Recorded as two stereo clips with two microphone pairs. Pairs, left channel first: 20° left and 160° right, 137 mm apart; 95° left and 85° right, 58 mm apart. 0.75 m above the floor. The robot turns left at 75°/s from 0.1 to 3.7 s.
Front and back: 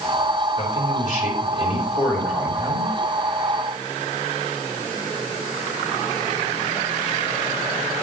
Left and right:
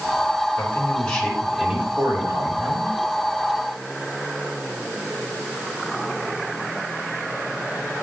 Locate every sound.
0.6 s a man speaking: 65° left, 4 m; by 2.9 s 115° right, 4 m